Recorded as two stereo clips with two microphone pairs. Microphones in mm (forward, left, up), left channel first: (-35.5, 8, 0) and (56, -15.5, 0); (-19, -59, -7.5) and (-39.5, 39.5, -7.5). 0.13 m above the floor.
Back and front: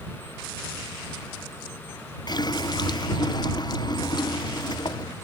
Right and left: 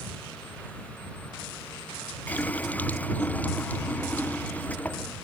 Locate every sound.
2.3 s a running tap: 150° right